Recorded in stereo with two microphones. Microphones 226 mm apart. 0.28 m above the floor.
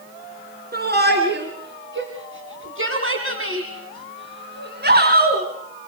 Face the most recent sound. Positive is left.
turn(degrees=-40)  # may be behind; listen again after turning